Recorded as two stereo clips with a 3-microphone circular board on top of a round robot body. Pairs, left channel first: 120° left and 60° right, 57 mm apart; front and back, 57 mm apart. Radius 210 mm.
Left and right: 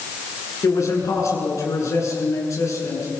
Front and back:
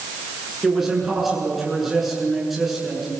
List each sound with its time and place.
0.6 s a man speaking: 95° left, 8.5 m